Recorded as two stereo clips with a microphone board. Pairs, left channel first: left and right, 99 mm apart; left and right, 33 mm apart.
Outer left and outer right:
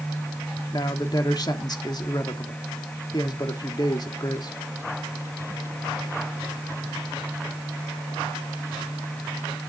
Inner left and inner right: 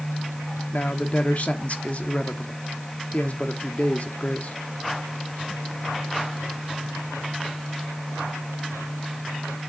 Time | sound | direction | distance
0.7 | a man speaking | 45° left (ahead or behind) | 1.3 m